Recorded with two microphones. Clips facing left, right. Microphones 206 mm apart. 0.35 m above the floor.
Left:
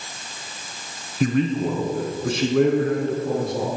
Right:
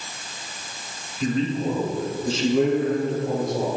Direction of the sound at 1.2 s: 70° left (ahead or behind).